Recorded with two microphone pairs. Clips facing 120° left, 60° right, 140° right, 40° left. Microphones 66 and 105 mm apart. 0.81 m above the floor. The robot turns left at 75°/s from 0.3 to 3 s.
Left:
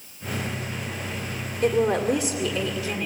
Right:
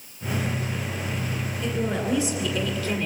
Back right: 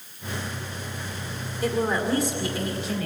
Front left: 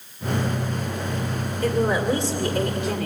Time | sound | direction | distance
1.6 | a woman speaking | 145° left | 2.5 m